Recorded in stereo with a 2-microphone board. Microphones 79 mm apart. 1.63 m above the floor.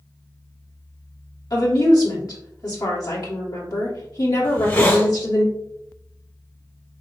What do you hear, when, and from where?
1.5 s a woman speaking: 55° left (ahead or behind), 1.7 m
4.4 s a hiss: 25° left (ahead or behind), 1.5 m